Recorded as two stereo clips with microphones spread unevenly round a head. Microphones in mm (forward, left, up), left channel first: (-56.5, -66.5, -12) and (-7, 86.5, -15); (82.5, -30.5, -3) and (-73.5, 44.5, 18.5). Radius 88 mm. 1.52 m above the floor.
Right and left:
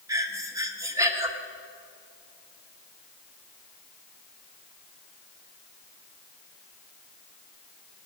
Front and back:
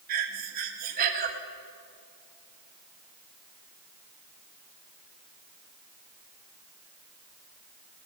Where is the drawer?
No drawer in this recording.